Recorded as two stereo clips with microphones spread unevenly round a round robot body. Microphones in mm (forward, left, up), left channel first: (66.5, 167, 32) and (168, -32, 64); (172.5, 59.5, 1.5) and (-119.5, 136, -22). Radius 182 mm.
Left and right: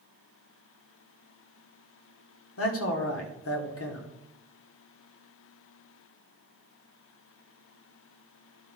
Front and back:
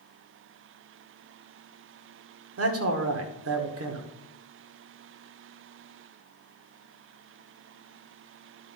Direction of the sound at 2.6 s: 125° left.